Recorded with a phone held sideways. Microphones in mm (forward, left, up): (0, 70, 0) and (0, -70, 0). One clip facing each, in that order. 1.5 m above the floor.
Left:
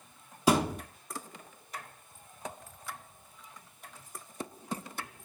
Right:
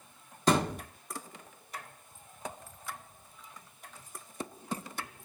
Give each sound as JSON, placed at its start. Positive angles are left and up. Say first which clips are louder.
{"t": 0.5, "sound": "a thud", "louder": "left 1 dB", "side_deg": 10, "distance_m": 1.1}